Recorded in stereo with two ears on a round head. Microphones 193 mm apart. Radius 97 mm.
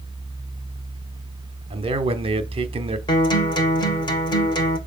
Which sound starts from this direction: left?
A guitar, at 3.1 s.